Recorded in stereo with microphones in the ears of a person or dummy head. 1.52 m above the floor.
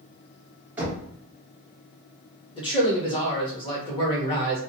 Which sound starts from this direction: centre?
Knocking, at 0.8 s.